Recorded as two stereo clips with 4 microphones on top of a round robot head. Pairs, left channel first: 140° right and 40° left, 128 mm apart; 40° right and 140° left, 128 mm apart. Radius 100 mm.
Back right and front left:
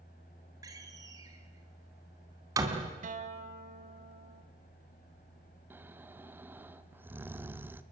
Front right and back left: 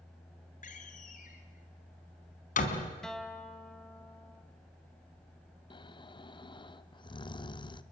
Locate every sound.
0.6 s a door slam: 25° right, 3 m
3.0 s a guitar: 45° left, 2.5 m
5.7 s snoring: 25° right, 1.1 m